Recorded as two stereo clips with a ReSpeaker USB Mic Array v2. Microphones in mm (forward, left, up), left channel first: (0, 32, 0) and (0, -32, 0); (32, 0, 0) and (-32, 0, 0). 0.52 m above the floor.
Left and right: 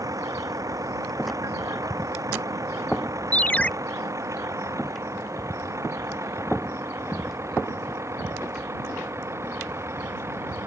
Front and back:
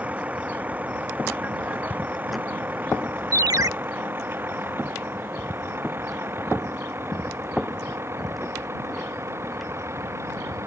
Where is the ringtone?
155° left.